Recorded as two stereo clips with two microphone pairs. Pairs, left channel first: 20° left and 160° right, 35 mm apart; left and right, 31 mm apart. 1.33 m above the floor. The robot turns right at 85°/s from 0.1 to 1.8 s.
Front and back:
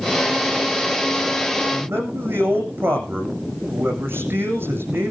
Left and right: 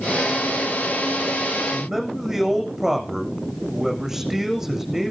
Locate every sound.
1.7 s a man speaking: 175° right, 8 m; by 5.1 s 165° right, 8 m